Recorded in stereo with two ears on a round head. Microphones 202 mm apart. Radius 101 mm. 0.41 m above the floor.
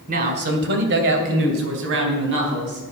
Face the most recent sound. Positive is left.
turn(degrees=-60)  # may be behind; listen again after turning